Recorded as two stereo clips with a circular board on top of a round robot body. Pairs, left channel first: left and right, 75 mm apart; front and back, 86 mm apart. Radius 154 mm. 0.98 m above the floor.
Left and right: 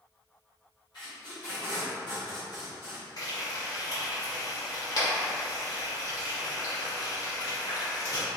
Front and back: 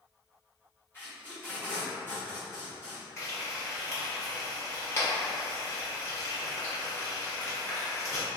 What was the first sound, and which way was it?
Tape being pulled, 65° left.